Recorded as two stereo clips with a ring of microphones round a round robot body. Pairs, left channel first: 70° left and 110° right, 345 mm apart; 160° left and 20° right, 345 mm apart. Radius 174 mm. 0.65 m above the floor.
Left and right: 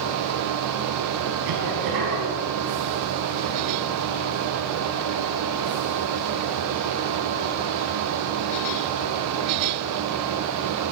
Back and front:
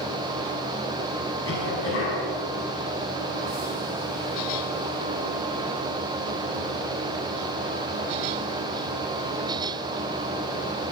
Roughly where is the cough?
Behind right.